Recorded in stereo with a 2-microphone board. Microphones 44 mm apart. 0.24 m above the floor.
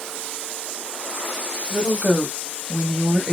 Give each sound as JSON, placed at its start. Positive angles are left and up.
{"t": 1.7, "sound": "a woman speaking", "side_deg": -40, "distance_m": 1.4}